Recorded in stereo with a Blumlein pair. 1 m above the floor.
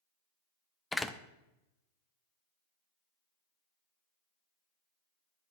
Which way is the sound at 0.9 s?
5° left.